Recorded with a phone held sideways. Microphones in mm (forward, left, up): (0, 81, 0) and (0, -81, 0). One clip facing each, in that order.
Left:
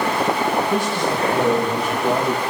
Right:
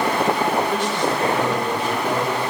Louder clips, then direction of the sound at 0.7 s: Left 1 dB; 10° left (ahead or behind).